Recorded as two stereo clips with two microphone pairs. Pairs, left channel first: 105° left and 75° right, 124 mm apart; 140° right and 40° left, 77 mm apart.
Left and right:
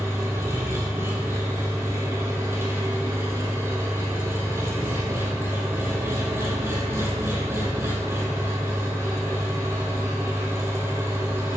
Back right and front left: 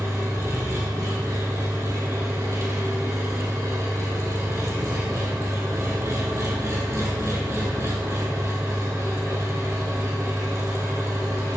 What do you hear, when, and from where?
0.0 s an engine running: 10° right, 2.5 m